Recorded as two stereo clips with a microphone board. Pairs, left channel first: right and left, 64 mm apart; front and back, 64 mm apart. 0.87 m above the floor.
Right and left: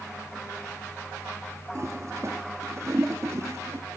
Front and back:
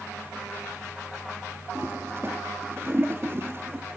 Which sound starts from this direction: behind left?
A toilet flushing, at 1.8 s.